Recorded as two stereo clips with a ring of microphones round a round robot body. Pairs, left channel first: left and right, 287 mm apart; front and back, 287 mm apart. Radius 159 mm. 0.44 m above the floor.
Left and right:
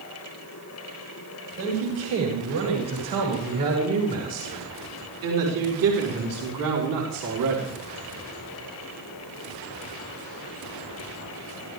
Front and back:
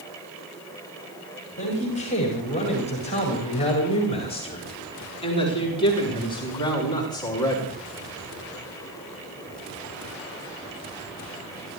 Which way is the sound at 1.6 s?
65° right.